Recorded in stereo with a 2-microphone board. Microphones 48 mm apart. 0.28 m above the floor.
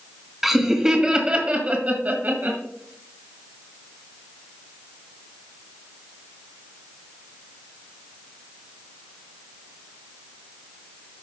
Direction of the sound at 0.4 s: 5° right (ahead or behind).